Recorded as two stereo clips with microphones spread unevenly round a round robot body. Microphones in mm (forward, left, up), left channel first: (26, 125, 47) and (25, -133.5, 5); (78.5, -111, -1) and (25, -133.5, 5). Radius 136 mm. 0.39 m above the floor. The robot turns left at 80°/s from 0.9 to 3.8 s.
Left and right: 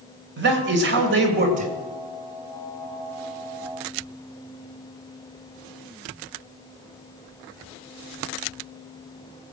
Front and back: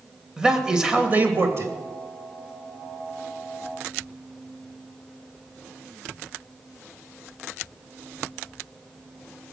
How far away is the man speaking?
About 2.5 m.